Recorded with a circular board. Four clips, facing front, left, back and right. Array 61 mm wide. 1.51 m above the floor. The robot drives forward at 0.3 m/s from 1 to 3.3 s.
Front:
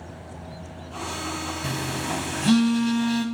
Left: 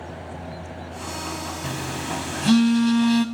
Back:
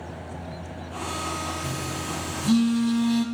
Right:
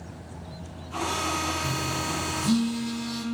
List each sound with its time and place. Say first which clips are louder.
1.6 s a phone buzzing: even, front 2 dB; 40° left, 0.7 m; by 3.2 s 80° left, 0.5 m